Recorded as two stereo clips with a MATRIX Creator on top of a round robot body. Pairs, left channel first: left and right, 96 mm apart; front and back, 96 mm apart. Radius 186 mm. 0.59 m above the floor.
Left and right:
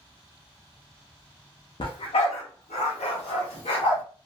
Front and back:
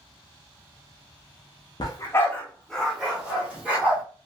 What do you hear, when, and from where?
1.8 s a dog barking: 50° left, 0.6 m; by 4.0 s 105° left, 1.5 m